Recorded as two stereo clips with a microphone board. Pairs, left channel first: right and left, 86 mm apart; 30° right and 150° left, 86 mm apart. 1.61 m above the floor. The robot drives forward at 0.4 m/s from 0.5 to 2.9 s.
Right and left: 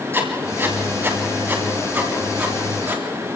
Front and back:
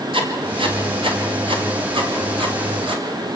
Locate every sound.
0.1 s writing: 155° left, 2.5 m; by 3.0 s 160° left, 3.5 m